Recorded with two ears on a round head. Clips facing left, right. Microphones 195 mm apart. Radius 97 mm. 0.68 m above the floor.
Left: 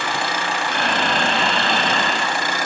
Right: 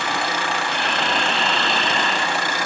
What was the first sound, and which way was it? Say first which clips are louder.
Breathing: left 2 dB; 45° left (ahead or behind).